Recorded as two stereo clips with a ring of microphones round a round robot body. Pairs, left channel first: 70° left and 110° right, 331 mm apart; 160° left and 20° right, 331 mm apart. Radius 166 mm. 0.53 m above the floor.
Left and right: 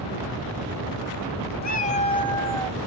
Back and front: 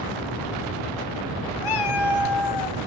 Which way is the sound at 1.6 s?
130° left.